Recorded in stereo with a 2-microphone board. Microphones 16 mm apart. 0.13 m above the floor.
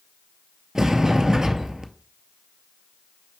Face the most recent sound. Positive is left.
turn(degrees=-40)  # may be behind; listen again after turning